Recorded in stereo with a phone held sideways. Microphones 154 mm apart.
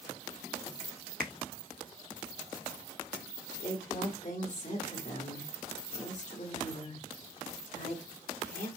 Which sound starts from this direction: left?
A woman speaking, at 3.6 s.